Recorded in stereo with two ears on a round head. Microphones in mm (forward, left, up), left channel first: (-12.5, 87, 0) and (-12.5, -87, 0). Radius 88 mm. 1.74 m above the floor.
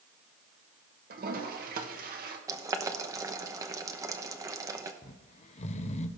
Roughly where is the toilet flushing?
Right.